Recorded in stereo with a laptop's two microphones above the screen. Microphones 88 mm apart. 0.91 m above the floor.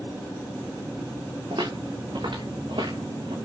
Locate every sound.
1.5 s footsteps: 80° right, 5 m